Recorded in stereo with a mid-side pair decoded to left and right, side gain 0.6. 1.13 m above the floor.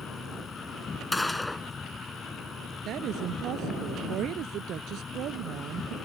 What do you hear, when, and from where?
0.0 s an insect: 25° left
1.1 s a gunshot: 10° left
2.9 s a woman speaking: 55° right